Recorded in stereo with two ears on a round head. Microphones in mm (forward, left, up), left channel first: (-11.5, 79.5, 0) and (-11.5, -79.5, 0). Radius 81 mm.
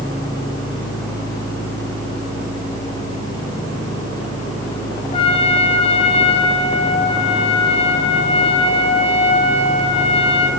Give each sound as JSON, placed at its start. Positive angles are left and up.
{"t": 5.1, "sound": "a trumpet", "side_deg": 35, "distance_m": 4.0}